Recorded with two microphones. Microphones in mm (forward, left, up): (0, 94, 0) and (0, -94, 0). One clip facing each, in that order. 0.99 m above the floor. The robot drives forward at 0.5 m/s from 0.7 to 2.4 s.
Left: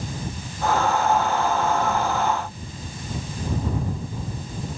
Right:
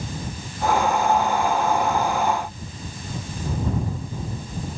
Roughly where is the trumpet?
I don't hear a trumpet.